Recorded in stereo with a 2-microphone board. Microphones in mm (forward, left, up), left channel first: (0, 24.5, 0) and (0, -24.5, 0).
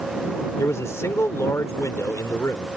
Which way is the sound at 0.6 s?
75° left (ahead or behind).